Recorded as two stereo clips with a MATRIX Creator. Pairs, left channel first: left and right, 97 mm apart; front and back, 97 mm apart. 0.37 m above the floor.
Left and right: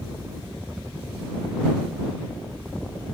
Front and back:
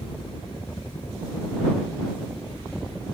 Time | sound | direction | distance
0.0 | a helicopter | 20° right | ?